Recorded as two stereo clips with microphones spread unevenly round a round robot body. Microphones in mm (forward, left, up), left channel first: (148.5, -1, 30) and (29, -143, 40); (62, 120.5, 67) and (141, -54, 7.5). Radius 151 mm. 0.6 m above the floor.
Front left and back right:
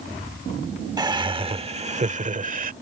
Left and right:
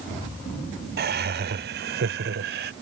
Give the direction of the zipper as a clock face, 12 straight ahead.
No zipper in this recording.